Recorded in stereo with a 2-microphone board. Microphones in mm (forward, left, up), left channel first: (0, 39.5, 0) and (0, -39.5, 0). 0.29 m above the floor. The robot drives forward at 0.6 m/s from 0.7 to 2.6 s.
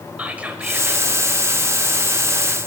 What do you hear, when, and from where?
0.2 s whispering: 20° right (ahead or behind), 0.9 m